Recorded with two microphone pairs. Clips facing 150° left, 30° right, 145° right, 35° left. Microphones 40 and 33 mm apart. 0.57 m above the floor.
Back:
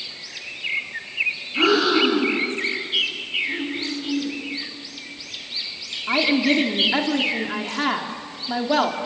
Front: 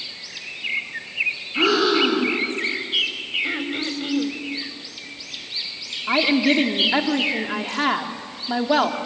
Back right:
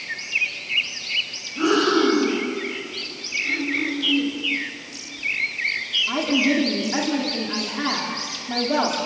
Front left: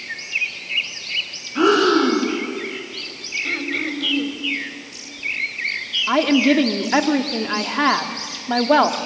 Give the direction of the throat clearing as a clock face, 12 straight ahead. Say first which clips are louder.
Front 1 dB, even; 1 o'clock.